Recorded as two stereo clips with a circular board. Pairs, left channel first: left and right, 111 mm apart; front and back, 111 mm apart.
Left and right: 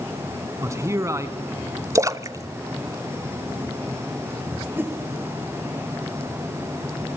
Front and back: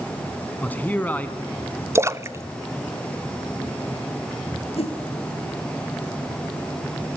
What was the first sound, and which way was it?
A man speaking, 60° right.